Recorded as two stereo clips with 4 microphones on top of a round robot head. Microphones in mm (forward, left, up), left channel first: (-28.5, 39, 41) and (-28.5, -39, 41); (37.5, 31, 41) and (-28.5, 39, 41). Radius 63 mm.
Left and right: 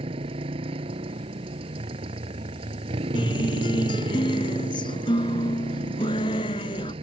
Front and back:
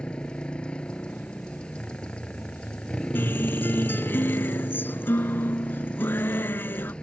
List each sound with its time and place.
0.0 s a motorcycle: 85° right
3.1 s a guitar: 55° left